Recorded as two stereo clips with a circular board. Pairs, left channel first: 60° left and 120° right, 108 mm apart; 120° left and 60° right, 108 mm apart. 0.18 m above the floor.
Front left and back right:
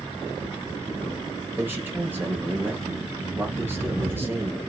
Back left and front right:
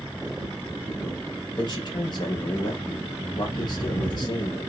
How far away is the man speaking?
About 3.5 m.